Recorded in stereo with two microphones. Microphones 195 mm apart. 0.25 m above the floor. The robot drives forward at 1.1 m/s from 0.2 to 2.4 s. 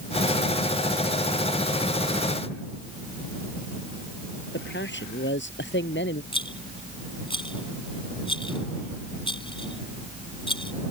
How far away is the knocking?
I don't hear knocking.